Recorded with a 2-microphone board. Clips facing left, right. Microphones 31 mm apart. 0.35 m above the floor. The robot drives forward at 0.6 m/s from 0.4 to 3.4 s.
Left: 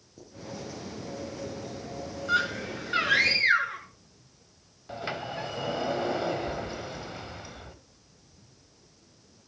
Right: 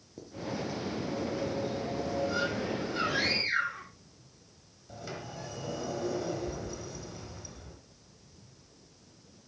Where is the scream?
75° left (ahead or behind), 5.5 m.